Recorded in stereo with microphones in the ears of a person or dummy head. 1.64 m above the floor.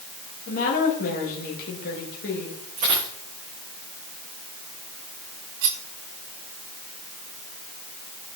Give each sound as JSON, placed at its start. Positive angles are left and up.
{"t": 0.5, "sound": "a woman speaking", "side_deg": 50, "distance_m": 2.5}
{"t": 2.8, "sound": "a dropped coin", "side_deg": -40, "distance_m": 5.5}
{"t": 5.6, "sound": "cutlery clinking", "side_deg": -65, "distance_m": 1.7}